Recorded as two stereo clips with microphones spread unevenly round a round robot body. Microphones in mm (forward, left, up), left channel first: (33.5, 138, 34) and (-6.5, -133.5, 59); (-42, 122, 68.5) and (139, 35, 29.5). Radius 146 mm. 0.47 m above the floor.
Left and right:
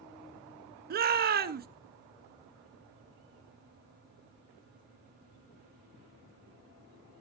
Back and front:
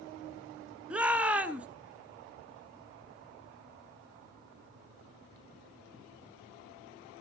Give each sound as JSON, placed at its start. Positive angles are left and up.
{"t": 0.9, "sound": "a shout", "azimuth_deg": -80, "distance_m": 1.1}